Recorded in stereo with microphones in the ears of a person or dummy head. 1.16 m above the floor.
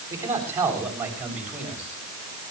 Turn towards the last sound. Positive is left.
turn(degrees=-5)  # may be behind; listen again after turning